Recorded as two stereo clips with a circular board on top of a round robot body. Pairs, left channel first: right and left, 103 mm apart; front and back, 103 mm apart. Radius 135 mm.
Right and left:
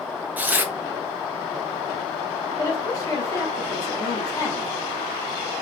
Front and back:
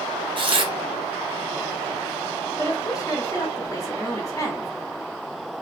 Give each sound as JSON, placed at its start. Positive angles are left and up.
{"t": 0.4, "sound": "tearing paper", "azimuth_deg": 160, "distance_m": 0.7}
{"t": 2.6, "sound": "a woman speaking", "azimuth_deg": -45, "distance_m": 1.4}